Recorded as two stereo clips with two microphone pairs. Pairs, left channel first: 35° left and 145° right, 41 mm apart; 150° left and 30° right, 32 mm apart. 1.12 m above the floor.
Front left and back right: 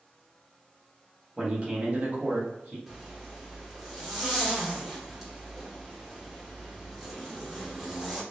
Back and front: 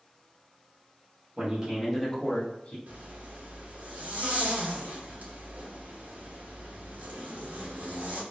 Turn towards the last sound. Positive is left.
turn(degrees=-60)